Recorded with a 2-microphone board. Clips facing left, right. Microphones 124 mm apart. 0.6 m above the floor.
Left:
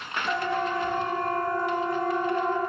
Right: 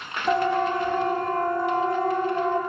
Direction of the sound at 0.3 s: 45° right (ahead or behind).